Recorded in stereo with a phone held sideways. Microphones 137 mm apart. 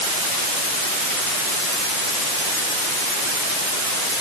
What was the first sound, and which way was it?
Only background noise.